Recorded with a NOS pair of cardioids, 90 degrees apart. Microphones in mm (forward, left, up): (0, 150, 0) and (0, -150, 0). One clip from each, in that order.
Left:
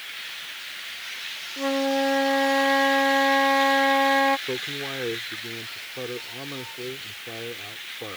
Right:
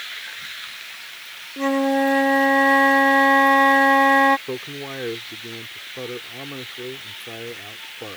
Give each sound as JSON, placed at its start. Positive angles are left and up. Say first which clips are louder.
{"t": 1.6, "sound": "a flute", "louder": "right 4 dB", "azimuth_deg": -35}
{"t": 4.5, "sound": "a man speaking", "louder": "left 1 dB", "azimuth_deg": -10}